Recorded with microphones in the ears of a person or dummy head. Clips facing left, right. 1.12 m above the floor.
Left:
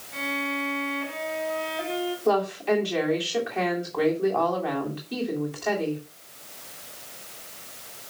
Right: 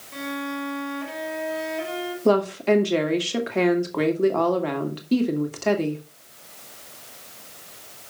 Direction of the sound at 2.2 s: 60° right (ahead or behind).